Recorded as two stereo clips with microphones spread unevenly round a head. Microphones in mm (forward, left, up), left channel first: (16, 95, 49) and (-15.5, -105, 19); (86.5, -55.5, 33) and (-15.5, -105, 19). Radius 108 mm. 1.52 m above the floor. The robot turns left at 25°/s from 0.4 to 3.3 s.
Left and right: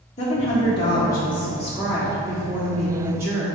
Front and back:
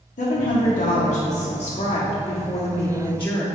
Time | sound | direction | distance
0.2 | a woman speaking | 20° left | 1.5 m